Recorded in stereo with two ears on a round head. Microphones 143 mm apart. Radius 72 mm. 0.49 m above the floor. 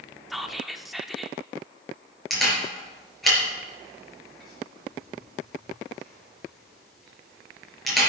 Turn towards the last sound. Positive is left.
turn(degrees=0)  # may be behind; listen again after turning